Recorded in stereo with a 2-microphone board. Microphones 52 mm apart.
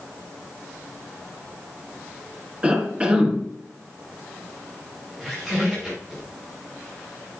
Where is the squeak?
10° right (ahead or behind), 4 m.